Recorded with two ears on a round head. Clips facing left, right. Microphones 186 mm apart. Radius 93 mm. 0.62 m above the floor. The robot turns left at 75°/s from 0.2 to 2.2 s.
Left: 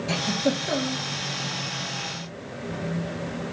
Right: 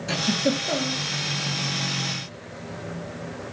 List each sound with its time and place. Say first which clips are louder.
0.1 s a giggle: right 2 dB; 15° right (ahead or behind), 0.7 m; by 1.0 s 25° left (ahead or behind), 0.7 m